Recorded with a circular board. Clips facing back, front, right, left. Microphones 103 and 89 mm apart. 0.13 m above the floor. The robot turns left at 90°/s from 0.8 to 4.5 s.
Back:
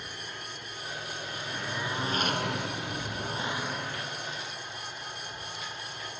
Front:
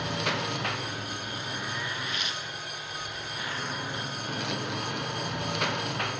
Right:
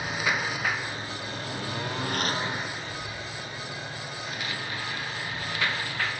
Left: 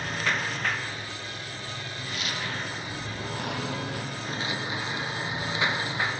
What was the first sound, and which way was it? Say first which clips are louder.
A lawn mower: front 12 dB, right 1 dB; 10° right.